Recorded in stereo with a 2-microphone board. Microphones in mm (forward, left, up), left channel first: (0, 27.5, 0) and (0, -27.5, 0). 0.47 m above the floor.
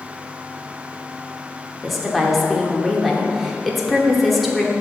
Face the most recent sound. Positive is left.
turn(degrees=0)  # may be behind; listen again after turning